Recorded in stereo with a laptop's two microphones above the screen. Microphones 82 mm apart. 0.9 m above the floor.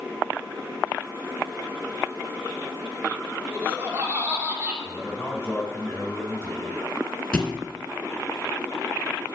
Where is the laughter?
25° right (ahead or behind), 2.5 m.